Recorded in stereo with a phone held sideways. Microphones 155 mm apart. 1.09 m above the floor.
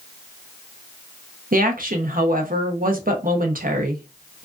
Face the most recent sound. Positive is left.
turn(degrees=-65)  # may be behind; listen again after turning